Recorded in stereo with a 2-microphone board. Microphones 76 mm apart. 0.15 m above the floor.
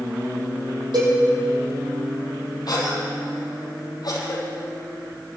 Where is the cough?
60° left (ahead or behind), 5 m.